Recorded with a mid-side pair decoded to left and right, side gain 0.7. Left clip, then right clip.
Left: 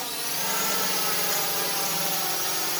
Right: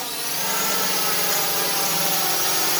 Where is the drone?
15° right; by 2.8 s 30° right.